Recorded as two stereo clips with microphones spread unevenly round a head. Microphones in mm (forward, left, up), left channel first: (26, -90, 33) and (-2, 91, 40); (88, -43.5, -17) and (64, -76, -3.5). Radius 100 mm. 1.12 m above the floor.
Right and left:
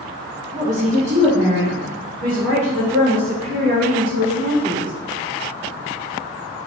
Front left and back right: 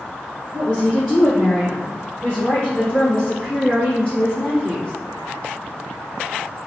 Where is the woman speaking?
140° left, 0.9 m; by 4.9 s 145° left, 3.5 m.